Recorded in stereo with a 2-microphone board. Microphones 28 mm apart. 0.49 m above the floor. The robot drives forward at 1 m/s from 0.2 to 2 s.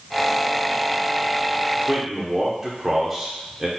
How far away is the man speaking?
About 0.9 m.